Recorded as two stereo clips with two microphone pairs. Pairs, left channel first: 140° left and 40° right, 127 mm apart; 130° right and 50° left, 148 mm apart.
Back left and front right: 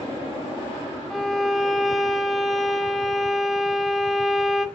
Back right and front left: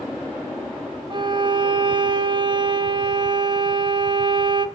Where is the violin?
50° left, 0.6 m.